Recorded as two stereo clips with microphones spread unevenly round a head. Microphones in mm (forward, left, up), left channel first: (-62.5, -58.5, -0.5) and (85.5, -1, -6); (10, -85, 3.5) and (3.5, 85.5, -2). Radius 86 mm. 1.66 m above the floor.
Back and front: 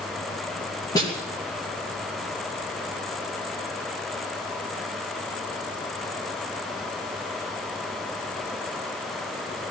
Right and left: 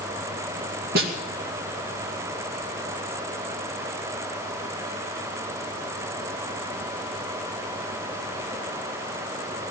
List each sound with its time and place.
0.9 s a snare drum: 130° left, 2.5 m